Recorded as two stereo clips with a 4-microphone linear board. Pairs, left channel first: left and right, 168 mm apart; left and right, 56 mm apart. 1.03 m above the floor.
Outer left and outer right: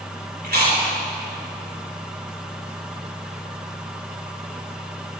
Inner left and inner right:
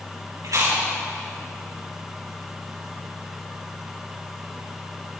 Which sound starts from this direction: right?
Chewing, at 0.4 s.